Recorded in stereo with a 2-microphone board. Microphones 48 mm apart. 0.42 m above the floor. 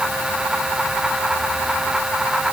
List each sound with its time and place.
Only background noise.